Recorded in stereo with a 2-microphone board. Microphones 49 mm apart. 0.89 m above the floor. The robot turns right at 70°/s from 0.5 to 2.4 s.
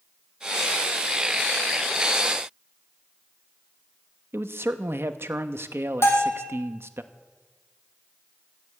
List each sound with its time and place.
4.3 s a man speaking: 60° right (ahead or behind), 0.7 m
6.0 s a bell: 75° left (ahead or behind), 2.5 m